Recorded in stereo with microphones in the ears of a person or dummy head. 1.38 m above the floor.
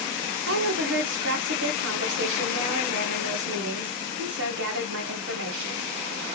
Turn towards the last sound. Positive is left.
turn(degrees=-65)  # may be behind; listen again after turning